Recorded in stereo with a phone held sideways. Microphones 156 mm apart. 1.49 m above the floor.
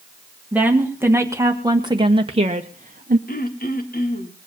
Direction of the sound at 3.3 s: 75° left (ahead or behind).